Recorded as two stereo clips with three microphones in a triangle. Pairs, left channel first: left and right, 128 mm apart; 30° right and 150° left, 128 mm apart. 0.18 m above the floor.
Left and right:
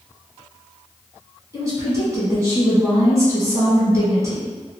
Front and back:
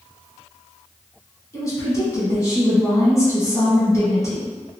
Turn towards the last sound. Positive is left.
turn(degrees=-60)